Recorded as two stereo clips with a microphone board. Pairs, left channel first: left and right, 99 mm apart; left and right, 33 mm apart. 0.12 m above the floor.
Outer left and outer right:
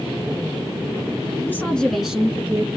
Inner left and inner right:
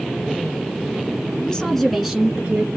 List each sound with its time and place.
1.4 s a woman speaking: 25° left (ahead or behind), 1.1 m; by 2.7 s 25° right (ahead or behind), 1.4 m